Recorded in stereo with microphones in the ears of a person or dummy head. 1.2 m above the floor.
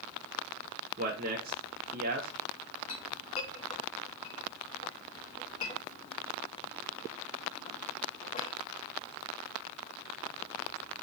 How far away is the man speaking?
About 0.5 m.